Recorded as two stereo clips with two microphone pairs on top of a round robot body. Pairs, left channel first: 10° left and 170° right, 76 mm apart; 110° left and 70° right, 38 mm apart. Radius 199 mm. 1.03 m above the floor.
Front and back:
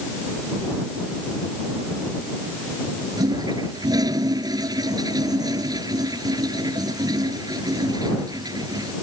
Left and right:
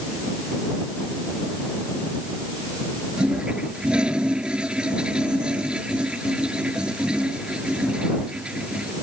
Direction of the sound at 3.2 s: 135° right.